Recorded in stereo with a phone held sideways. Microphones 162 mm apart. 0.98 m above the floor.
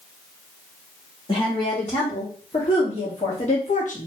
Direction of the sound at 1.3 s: 30° left (ahead or behind).